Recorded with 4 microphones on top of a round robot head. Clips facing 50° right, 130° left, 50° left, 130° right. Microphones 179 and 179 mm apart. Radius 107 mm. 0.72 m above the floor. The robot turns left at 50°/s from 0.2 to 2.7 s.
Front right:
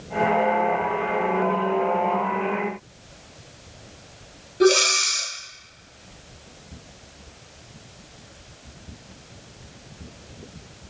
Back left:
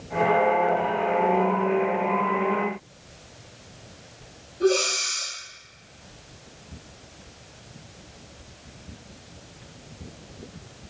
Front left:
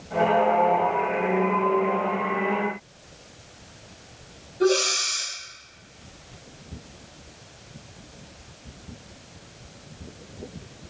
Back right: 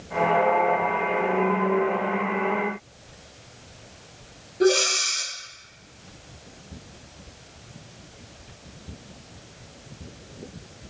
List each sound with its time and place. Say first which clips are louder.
4.6 s breathing: front right 4 dB, back right 1 dB; 60° right, 0.5 m